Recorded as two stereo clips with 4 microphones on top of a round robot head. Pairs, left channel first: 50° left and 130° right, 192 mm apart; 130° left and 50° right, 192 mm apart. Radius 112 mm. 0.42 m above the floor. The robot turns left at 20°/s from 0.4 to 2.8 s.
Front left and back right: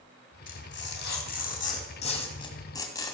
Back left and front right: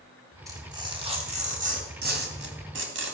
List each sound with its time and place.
0.5 s tearing paper: 25° left, 2.5 m; by 3.1 s 25° right, 2.5 m